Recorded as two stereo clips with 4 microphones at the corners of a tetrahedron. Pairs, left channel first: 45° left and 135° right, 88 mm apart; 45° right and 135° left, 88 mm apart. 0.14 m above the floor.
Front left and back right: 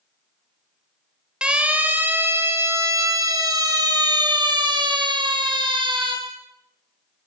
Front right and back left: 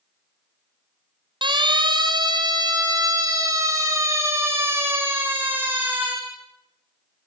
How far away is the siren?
About 3.5 m.